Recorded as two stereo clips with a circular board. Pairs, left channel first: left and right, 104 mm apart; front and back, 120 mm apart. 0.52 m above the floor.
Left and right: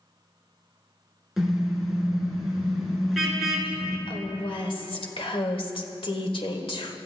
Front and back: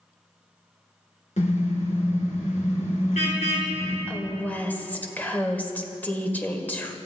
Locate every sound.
1.4 s a car horn: straight ahead, 3.5 m
4.1 s a woman speaking: 75° left, 1.9 m